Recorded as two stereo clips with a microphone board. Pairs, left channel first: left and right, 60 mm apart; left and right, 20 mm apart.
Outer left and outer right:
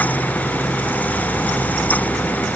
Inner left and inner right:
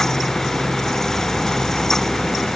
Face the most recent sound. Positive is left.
No sound to turn to.